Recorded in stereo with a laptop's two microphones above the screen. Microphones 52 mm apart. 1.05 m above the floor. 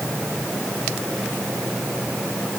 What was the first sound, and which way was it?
Only background noise.